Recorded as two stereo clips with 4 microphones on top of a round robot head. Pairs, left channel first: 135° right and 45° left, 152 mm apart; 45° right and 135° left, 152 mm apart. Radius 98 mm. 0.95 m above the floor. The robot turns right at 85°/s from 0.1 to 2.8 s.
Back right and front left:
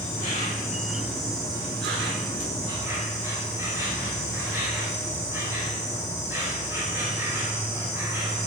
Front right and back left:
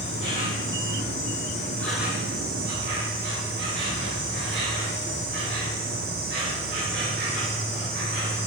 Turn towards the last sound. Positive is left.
turn(degrees=120)